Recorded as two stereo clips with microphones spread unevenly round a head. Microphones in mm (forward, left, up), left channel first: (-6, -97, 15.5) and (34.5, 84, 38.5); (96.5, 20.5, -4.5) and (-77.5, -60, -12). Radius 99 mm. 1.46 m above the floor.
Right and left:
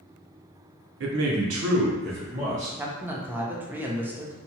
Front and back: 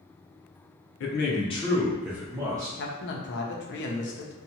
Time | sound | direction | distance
1.0 | a man speaking | 55° left | 0.7 m
2.8 | a man speaking | 5° right | 0.6 m